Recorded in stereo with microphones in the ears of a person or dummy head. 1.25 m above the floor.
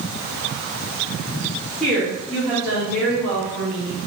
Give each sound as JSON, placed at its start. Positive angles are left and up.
{"t": 1.8, "sound": "a woman speaking", "side_deg": 0, "distance_m": 1.6}